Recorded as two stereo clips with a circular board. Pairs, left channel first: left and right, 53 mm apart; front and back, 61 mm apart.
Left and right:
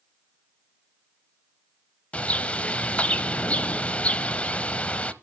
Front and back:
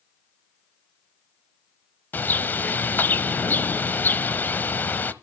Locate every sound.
2.1 s a bird: 40° left, 0.8 m